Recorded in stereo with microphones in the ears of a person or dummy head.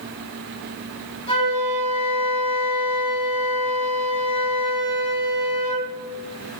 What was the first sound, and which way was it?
A flute, 30° left (ahead or behind).